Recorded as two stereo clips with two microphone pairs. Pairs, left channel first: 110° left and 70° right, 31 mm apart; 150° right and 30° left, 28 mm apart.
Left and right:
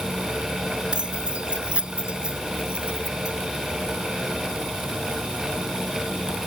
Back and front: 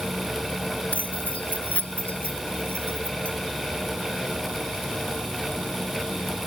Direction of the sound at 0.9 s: 125° right.